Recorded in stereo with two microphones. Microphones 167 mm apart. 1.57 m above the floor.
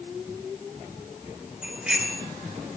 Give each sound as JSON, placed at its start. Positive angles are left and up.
{"t": 1.6, "sound": "a bicycle bell", "side_deg": -5, "distance_m": 4.0}